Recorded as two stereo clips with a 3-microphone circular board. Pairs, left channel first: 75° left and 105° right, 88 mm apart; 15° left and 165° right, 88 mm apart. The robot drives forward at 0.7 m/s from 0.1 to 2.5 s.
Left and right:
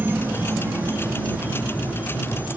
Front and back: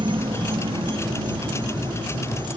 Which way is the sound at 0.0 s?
170° right.